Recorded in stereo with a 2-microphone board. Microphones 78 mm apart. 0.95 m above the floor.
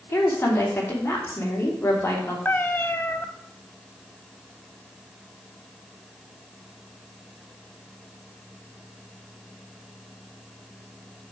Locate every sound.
0.1 s a woman speaking: 25° left (ahead or behind), 3 m
2.5 s a cat meowing: 25° left (ahead or behind), 0.7 m